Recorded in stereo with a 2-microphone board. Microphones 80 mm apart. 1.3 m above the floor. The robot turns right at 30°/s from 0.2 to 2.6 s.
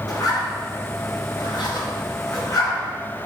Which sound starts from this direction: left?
A zipper, at 0.1 s.